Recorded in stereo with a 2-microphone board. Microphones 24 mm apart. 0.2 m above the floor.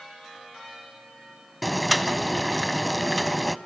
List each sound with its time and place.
1.6 s boiling: 5° left (ahead or behind), 0.6 m